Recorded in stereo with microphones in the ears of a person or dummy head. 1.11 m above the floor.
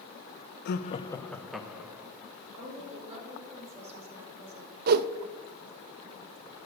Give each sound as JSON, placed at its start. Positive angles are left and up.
{"t": 0.7, "sound": "laughter", "side_deg": 55, "distance_m": 0.7}
{"t": 2.6, "sound": "a woman speaking", "side_deg": -35, "distance_m": 4.0}
{"t": 4.9, "sound": "a whoosh", "side_deg": -50, "distance_m": 0.5}